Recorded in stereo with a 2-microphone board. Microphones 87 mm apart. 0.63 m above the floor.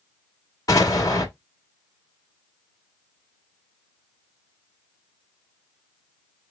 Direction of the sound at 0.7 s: 40° left (ahead or behind).